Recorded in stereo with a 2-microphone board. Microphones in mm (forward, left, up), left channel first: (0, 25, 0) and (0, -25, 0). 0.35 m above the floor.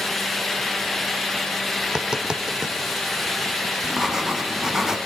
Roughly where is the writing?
Centre.